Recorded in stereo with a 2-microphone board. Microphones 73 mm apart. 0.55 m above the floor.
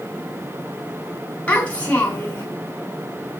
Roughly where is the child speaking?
Centre.